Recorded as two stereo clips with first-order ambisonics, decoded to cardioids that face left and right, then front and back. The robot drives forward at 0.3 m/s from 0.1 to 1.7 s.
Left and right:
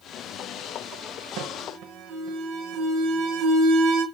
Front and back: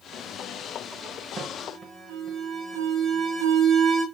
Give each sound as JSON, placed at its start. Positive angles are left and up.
{"t": 1.4, "sound": "an alarm", "azimuth_deg": -110, "distance_m": 0.7}